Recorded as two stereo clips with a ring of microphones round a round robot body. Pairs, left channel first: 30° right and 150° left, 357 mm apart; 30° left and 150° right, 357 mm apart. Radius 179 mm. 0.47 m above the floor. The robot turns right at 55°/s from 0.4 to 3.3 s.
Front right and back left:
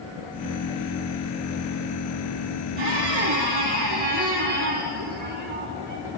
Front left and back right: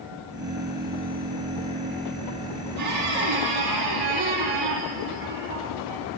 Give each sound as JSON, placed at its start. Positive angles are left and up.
{"t": 2.8, "sound": "a squeak", "azimuth_deg": 160, "distance_m": 5.0}